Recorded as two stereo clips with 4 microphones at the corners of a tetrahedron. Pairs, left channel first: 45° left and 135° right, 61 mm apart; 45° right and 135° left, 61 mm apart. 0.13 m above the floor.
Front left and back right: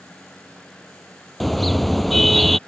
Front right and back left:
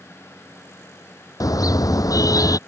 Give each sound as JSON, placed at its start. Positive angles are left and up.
{"t": 1.4, "sound": "a car horn", "azimuth_deg": -45}